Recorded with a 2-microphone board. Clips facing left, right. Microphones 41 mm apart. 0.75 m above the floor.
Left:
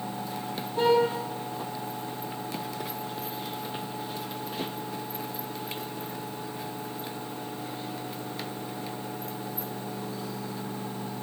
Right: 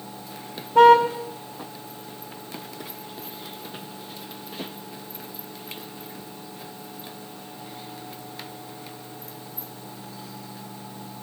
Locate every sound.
0.8 s a car horn: 65° right (ahead or behind), 3 m